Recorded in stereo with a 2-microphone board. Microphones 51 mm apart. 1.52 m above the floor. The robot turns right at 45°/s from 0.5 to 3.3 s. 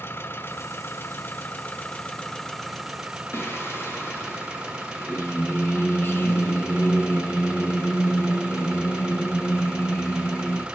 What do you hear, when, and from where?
0.0 s an engine running: 75° left, 1.6 m; by 10.8 s 160° right, 1.6 m
3.3 s singing: 50° left (ahead or behind), 1.6 m